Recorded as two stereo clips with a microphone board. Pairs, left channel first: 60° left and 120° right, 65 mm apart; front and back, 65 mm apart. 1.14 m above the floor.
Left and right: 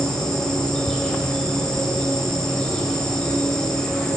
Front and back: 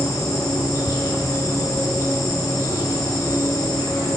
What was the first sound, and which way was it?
An insect, 25° right.